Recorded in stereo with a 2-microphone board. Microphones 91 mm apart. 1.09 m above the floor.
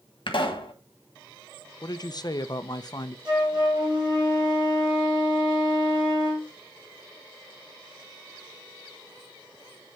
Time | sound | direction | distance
0.3 | a pop | 65° left (ahead or behind) | 1.5 m
1.8 | a woman speaking | 45° left (ahead or behind) | 0.6 m
3.2 | a flute | 55° right (ahead or behind) | 4 m